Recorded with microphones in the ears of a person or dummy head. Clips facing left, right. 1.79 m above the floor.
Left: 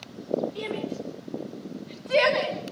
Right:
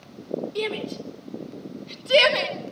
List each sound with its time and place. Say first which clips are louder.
0.6 s a shout: right 3 dB; 60° right (ahead or behind), 6 m; by 2.6 s 50° right (ahead or behind), 5 m